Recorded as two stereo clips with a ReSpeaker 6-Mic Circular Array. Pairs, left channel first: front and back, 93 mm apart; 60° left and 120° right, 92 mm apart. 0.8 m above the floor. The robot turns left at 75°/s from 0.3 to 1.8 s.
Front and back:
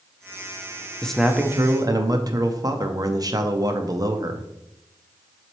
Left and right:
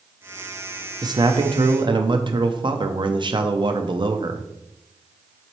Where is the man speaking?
80° right, 0.7 m; by 4.4 s 140° right, 0.7 m.